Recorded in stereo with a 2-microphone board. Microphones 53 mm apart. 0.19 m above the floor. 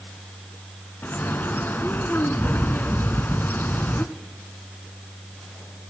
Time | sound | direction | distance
1.0 | a bird | 40° left (ahead or behind) | 0.7 m